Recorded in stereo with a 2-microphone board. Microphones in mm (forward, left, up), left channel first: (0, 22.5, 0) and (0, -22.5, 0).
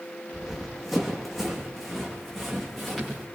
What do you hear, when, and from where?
0.3 s running footsteps: 5° right (ahead or behind), 4 m